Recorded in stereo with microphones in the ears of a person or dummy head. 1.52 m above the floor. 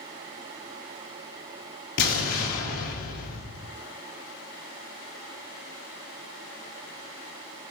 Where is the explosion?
65° left (ahead or behind), 1.9 m.